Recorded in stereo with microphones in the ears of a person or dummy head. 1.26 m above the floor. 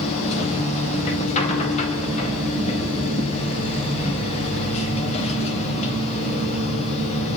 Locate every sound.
0.0 s a machine running: 35° left (ahead or behind), 4.5 m